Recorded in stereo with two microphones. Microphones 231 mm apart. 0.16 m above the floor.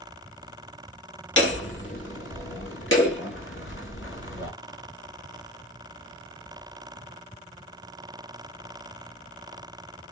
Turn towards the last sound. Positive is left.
turn(degrees=55)  # may be behind; listen again after turning